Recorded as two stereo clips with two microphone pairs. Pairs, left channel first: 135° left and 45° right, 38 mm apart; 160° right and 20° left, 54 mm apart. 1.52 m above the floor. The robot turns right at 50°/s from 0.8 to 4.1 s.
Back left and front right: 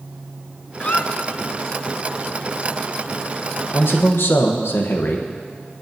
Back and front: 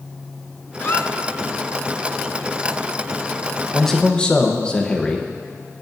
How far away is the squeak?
About 0.5 m.